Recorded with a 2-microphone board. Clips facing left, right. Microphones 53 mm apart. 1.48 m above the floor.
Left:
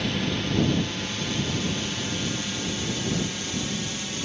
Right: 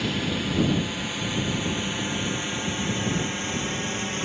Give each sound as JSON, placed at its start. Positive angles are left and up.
{"t": 0.0, "sound": "a drone", "side_deg": 0}